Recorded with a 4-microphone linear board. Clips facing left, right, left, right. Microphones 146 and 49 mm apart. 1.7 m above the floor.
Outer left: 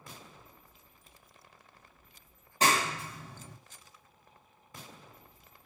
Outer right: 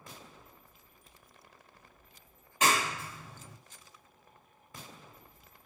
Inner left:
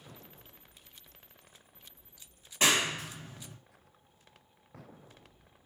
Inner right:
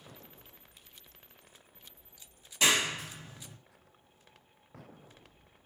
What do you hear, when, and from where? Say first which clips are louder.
2.6 s a clap: outer left 1 dB, even; 35° left (ahead or behind), 1.5 m